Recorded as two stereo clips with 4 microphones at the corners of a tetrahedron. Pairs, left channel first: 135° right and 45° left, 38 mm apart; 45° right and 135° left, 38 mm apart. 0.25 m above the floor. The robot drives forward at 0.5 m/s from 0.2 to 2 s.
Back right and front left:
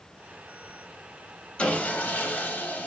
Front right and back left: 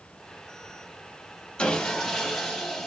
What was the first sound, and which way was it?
Sawing, 95° right.